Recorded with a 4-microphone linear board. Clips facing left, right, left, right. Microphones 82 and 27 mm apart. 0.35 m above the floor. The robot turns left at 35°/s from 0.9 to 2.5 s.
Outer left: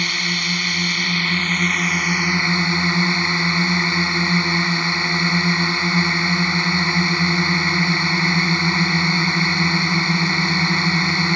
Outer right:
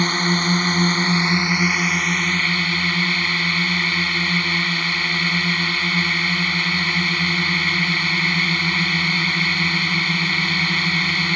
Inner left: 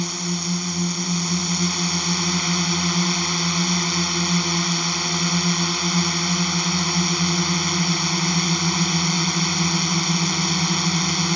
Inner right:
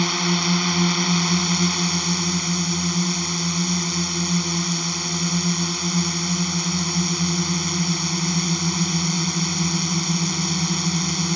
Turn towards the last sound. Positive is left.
turn(degrees=160)